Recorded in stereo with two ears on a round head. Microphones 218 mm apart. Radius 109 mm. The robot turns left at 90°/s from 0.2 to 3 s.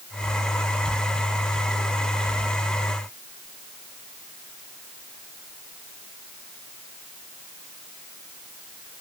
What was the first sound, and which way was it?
Only background noise.